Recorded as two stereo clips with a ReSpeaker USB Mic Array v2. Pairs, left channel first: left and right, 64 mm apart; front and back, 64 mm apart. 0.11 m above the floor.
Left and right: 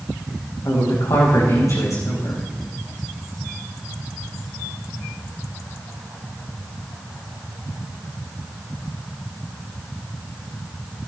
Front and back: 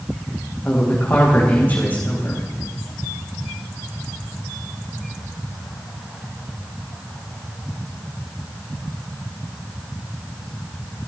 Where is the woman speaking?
65° left, 6.5 m.